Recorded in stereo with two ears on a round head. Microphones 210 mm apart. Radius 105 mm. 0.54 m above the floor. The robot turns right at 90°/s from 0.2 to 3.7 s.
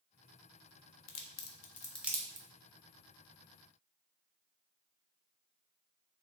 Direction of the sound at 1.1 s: 75° left (ahead or behind).